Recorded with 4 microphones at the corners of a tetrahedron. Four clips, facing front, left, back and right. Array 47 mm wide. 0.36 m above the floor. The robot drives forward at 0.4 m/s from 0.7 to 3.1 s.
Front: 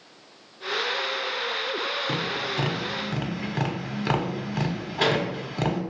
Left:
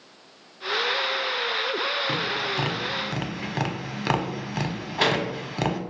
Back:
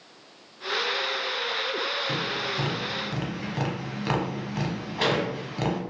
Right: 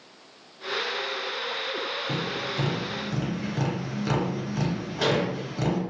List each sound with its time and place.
2.1 s tapping: 55° left, 0.9 m; by 5.8 s 80° left, 0.8 m